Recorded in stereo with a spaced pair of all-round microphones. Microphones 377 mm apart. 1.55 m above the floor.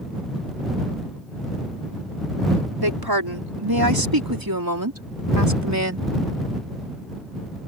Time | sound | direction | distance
2.8 | a woman speaking | 80° right | ?